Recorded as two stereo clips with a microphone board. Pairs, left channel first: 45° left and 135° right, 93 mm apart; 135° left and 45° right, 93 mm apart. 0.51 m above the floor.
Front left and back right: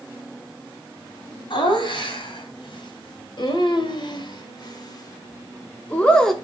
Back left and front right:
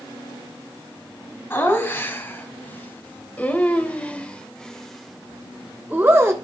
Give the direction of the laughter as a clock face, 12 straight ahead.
10 o'clock.